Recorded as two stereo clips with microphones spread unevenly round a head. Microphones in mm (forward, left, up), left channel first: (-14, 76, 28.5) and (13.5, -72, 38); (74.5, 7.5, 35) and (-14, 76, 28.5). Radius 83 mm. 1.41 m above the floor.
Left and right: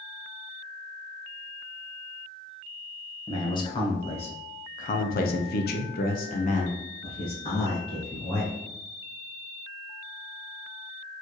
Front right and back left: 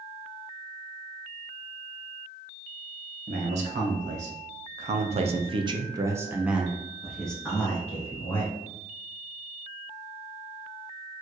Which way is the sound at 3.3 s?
165° left.